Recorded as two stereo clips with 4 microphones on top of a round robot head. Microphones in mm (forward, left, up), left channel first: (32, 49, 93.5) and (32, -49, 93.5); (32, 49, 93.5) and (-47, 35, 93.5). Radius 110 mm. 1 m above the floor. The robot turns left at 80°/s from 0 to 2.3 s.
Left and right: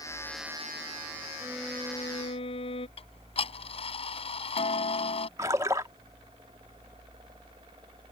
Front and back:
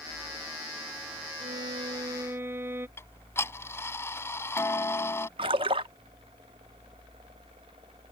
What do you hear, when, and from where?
1.4 s a violin: 160° right; by 2.9 s 130° left
3.0 s ticking: 70° left
5.4 s a splash: 155° right